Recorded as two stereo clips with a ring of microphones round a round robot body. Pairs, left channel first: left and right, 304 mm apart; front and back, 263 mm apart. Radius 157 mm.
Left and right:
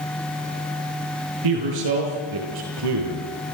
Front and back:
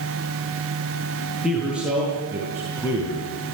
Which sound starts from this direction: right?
A man speaking, at 1.4 s.